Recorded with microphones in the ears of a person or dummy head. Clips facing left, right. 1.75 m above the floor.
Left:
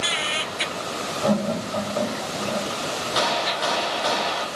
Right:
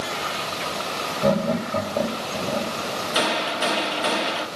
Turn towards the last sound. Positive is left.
turn(degrees=-35)  # may be behind; listen again after turning